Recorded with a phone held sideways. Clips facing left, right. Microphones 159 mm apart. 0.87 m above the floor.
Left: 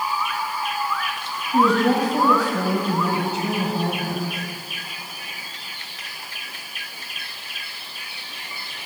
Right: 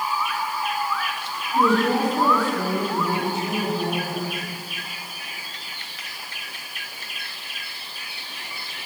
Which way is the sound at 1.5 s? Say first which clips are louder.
Left 2 dB; 85° left.